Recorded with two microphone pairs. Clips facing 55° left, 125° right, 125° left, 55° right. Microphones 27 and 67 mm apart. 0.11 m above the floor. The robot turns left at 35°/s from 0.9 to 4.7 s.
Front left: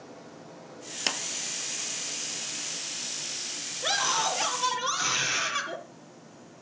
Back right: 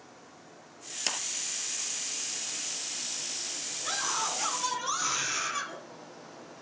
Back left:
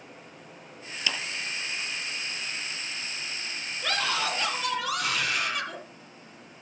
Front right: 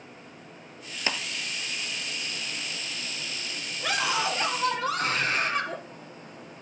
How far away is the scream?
About 3.5 m.